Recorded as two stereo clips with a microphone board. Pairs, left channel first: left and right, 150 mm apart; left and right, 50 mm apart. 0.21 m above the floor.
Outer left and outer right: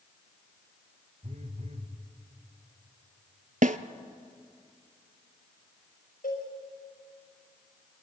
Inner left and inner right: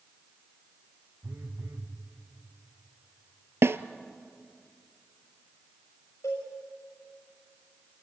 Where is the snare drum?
60° right (ahead or behind), 0.7 m.